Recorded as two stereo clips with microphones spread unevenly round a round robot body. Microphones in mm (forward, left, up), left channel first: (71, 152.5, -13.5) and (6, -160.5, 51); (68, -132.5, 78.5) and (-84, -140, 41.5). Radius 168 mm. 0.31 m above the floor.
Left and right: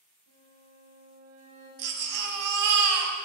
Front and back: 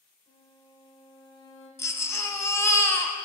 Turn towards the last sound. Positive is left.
turn(degrees=-75)